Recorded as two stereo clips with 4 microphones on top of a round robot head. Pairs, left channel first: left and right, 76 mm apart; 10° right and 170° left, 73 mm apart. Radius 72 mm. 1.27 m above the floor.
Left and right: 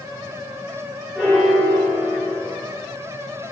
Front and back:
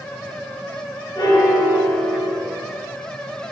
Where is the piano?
Straight ahead, 2 m.